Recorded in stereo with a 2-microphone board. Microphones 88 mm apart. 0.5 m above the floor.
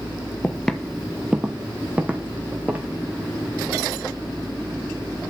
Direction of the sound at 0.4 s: 15° left (ahead or behind).